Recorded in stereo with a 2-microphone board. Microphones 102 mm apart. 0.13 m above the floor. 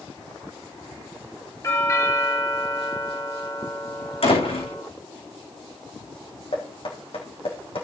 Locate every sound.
1.6 s a doorbell: 30° left (ahead or behind), 3.5 m
4.2 s a door slam: 70° left (ahead or behind), 8 m
6.5 s knocking: 70° left (ahead or behind), 4.5 m